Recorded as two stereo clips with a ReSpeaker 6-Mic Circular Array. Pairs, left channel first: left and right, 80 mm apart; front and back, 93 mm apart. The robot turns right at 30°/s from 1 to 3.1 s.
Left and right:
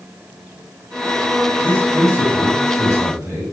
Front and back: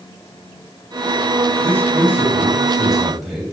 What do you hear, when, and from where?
1.6 s a man speaking: 135° right, 1.3 m; by 3.4 s 90° right, 1.3 m